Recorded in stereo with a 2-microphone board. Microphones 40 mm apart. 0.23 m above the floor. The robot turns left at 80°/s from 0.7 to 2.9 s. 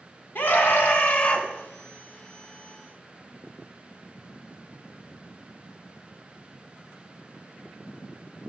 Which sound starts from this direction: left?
A scream, at 0.3 s.